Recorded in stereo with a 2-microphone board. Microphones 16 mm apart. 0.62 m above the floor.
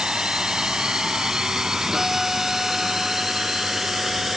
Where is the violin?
20° right (ahead or behind).